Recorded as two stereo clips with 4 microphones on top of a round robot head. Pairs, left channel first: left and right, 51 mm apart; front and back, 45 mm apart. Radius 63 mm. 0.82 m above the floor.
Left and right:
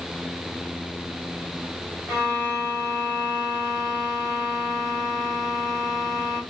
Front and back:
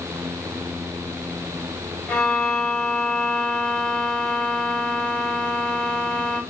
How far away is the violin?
About 2 m.